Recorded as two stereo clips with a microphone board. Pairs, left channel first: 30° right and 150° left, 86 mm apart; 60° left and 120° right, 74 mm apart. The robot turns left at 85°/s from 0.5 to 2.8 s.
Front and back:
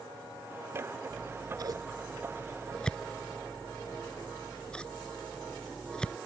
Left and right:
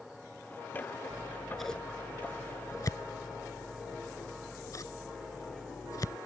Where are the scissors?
170° right; by 6.2 s 45° left.